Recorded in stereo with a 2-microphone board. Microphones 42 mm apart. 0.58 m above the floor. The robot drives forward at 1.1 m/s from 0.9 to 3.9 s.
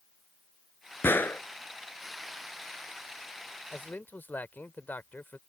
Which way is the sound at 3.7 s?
45° left (ahead or behind).